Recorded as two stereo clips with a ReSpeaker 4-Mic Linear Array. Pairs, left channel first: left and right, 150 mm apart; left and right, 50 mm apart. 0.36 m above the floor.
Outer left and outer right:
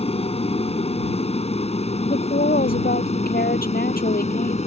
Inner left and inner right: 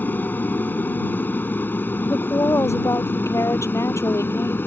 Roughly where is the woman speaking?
Left.